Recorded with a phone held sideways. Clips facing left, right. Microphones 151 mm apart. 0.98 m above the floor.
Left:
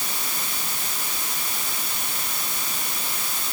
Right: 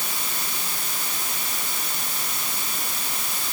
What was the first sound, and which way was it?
Only background noise.